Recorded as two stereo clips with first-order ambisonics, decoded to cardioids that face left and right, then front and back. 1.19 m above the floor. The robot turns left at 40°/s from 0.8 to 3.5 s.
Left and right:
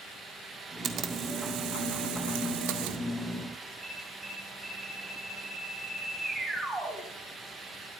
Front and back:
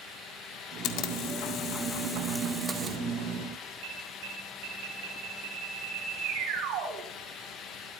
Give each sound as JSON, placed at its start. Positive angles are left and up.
{"t": 0.8, "sound": "a camera shutter", "azimuth_deg": -30, "distance_m": 1.9}
{"t": 3.8, "sound": "an alarm", "azimuth_deg": -170, "distance_m": 6.0}